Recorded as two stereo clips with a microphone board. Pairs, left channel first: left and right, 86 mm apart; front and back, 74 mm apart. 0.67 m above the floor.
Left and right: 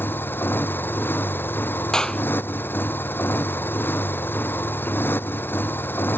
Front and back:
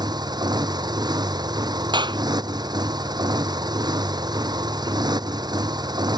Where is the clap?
170° left.